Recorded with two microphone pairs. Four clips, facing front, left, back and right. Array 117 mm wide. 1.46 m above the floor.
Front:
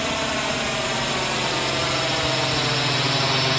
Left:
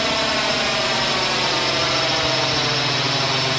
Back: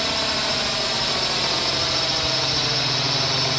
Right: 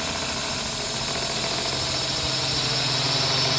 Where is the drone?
85° left; by 3.6 s 55° left.